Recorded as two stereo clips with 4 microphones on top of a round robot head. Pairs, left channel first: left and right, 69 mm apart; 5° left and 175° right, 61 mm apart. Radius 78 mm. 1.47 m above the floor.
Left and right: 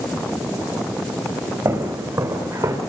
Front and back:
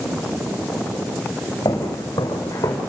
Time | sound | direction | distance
1.6 | footsteps | 40° right | 5 m